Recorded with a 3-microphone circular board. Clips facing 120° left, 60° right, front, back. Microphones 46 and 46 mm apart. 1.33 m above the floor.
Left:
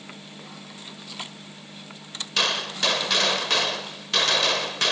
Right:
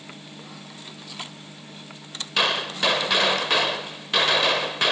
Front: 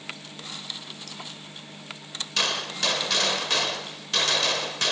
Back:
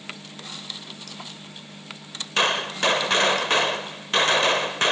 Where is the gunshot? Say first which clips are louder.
Right 2 dB, back 6 dB; 135° right, 1.4 m.